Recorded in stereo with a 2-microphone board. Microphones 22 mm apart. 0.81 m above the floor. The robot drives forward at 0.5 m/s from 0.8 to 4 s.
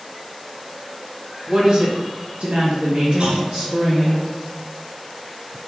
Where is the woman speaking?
35° right (ahead or behind), 0.7 m; by 4.2 s 30° right (ahead or behind), 0.9 m.